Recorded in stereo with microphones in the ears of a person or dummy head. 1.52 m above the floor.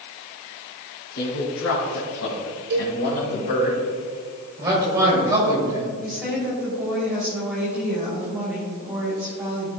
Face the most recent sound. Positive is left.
turn(degrees=-5)  # may be behind; listen again after turning